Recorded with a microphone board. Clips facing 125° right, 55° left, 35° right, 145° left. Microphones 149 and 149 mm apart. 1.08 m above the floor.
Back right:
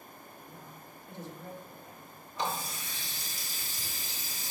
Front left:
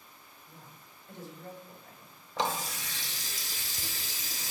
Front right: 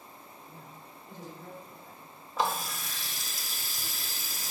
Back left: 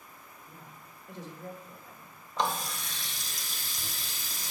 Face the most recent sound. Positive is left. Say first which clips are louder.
# front left 3 dB, front right 1 dB
turn(degrees=50)